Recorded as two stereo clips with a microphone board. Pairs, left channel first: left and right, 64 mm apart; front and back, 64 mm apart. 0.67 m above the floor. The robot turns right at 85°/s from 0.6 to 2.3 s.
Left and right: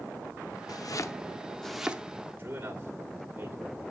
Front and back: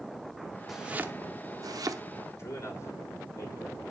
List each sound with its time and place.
0.7 s chopping: 90° left, 0.8 m; by 2.0 s 155° right, 0.8 m
2.4 s a man speaking: 30° right, 2 m